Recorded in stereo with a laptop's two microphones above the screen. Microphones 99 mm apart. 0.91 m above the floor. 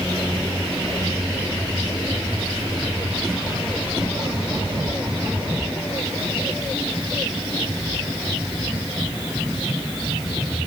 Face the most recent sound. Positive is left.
No sound to turn to.